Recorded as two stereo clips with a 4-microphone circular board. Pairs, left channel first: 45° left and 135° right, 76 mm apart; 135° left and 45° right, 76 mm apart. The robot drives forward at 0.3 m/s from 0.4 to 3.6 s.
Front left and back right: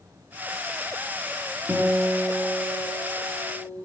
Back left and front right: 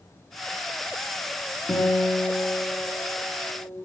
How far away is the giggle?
I don't hear a giggle.